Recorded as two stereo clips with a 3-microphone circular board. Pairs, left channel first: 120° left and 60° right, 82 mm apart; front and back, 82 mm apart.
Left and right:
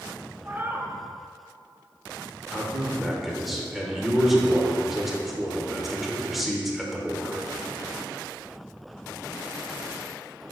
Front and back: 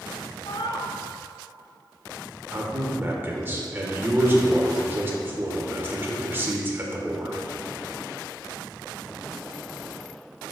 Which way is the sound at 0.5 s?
5° left.